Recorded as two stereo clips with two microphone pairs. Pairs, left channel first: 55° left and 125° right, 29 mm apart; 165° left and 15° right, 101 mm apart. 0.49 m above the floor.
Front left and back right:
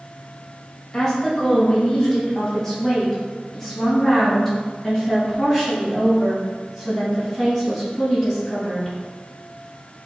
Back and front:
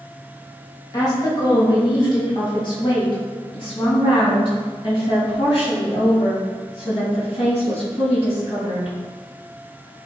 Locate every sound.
0.9 s a woman speaking: 120° left, 2.5 m; by 8.9 s 140° left, 7 m